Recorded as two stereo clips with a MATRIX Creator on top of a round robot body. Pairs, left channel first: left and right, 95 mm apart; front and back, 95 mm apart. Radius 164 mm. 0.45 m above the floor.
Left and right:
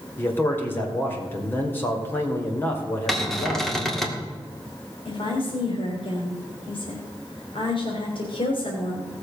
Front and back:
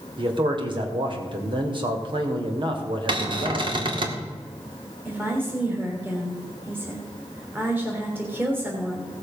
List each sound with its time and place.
0.2 s a man speaking: 155° left, 2.5 m
3.1 s a cupboard door: 175° left, 2 m
5.0 s a woman speaking: 110° left, 3.5 m